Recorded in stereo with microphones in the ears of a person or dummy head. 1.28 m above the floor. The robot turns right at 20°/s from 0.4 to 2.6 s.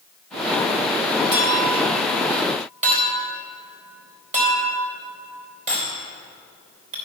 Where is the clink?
60° right (ahead or behind), 3 m; by 7.0 s 35° right (ahead or behind), 3 m.